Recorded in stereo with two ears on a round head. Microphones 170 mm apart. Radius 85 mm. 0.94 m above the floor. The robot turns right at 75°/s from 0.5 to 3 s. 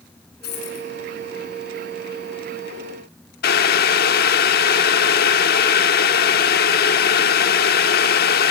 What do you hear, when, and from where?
0.4 s a dropped coin: 55° left (ahead or behind), 5.5 m; by 0.9 s 85° left, 5.5 m
3.4 s boiling: 55° left (ahead or behind), 1.1 m